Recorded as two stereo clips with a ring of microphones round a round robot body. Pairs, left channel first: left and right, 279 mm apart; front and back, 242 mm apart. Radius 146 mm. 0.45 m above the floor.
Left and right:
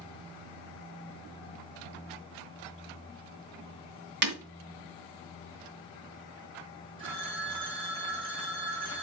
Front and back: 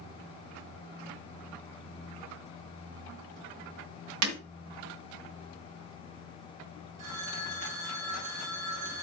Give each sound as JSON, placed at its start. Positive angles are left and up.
{"t": 4.2, "sound": "breaking glass", "azimuth_deg": -145, "distance_m": 2.5}
{"t": 7.0, "sound": "a phone ringing", "azimuth_deg": -165, "distance_m": 3.0}